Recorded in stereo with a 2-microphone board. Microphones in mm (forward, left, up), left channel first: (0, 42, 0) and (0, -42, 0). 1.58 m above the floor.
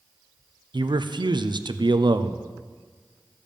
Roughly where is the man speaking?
Right.